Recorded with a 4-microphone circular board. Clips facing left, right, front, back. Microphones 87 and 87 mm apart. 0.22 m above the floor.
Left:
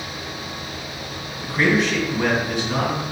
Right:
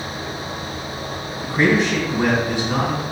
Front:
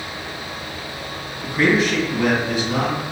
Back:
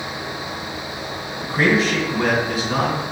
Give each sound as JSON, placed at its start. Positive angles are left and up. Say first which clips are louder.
{"t": 1.4, "sound": "a man speaking", "louder": "right 2 dB, even", "azimuth_deg": -140, "distance_m": 2.0}